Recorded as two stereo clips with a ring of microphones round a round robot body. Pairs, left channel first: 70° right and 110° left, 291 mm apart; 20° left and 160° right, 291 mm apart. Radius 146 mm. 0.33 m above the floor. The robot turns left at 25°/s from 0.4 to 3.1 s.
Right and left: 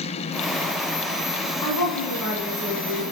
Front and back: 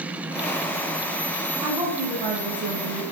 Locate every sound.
1.6 s a woman speaking: 75° right, 2.5 m; by 3.0 s 110° right, 2.5 m